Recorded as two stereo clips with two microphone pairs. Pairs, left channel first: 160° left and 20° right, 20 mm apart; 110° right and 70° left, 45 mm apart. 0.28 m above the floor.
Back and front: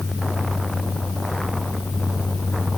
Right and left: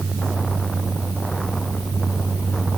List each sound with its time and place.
Only background noise.